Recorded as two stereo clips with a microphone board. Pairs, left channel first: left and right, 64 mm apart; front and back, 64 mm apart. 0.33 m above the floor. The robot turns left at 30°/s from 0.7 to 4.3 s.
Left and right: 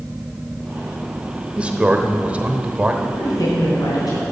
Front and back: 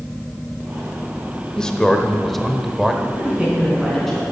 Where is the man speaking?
60° right, 0.8 m; by 2.9 s 100° right, 0.8 m.